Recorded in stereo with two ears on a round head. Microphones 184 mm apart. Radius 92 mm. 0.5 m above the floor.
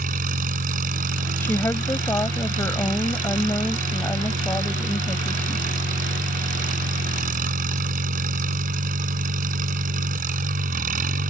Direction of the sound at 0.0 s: 45° right (ahead or behind).